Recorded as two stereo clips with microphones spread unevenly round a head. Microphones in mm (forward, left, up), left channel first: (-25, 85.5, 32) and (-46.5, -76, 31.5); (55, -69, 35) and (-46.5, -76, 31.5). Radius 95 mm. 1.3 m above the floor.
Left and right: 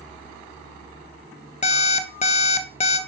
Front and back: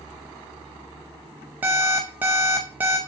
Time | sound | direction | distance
1.6 | an alarm clock | 110° left | 0.5 m